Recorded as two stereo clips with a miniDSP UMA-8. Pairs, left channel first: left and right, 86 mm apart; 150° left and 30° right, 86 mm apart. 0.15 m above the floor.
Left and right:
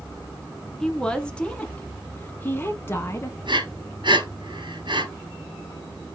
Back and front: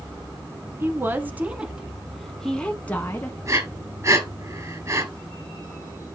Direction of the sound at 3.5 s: 80° right.